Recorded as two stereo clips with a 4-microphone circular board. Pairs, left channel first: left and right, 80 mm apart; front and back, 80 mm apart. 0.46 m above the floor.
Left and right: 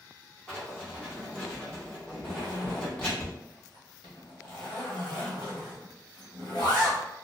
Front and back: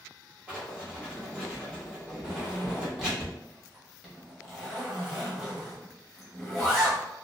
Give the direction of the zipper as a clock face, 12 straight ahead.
9 o'clock.